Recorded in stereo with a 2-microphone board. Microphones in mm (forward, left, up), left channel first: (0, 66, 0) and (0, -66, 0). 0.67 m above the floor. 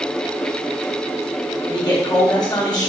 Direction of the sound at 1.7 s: 30° left (ahead or behind).